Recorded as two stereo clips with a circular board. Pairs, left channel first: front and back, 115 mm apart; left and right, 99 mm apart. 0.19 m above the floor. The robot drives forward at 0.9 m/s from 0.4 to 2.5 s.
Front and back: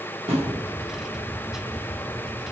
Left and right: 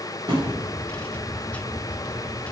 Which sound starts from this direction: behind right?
A thud, at 0.3 s.